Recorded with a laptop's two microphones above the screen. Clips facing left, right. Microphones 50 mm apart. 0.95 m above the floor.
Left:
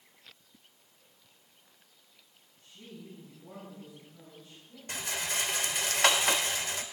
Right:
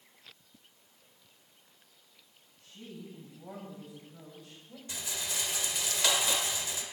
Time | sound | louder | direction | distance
2.6 | a woman speaking | right 2 dB | 85° right | 7.5 m
4.9 | a rattle | left 4 dB | 50° left (ahead or behind) | 1.2 m